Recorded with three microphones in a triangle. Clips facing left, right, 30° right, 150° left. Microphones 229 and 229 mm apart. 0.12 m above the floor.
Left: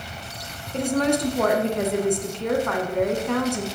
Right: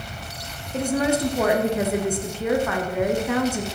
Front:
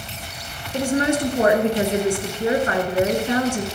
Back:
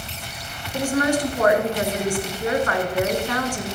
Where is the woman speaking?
5° right, 1.2 m.